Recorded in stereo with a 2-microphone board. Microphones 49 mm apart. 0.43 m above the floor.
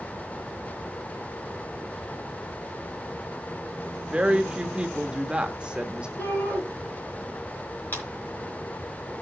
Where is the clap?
40° left (ahead or behind), 4.5 m.